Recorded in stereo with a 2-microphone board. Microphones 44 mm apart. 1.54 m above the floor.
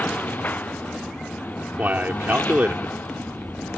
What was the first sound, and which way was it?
A lawn mower, 45° left (ahead or behind).